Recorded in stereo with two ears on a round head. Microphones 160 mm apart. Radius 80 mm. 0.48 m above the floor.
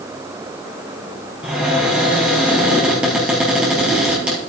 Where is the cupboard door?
5° right (ahead or behind), 3.5 m.